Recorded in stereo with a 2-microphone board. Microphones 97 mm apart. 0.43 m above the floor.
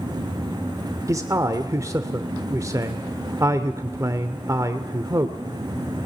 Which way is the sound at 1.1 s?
35° right (ahead or behind).